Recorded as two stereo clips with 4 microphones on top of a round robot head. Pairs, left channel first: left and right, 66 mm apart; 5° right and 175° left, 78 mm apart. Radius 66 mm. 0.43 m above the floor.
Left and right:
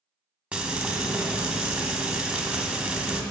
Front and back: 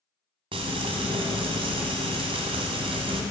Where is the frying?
165° right, 0.8 m.